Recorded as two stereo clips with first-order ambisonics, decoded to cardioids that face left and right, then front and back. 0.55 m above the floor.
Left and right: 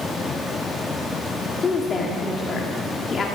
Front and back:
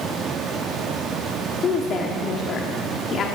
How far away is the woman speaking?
About 1.1 m.